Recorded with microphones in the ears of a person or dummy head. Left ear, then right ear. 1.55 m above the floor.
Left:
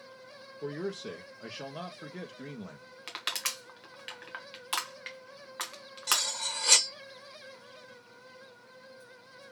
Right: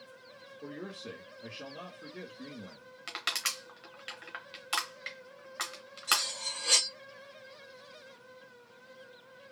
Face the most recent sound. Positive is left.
turn(degrees=60)  # may be behind; listen again after turning